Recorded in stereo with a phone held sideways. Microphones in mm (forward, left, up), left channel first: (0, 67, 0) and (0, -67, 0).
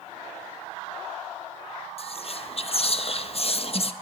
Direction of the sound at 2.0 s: 45° left (ahead or behind).